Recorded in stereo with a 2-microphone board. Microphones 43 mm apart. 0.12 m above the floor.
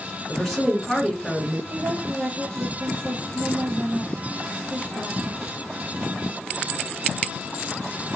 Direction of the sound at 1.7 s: 60° right (ahead or behind).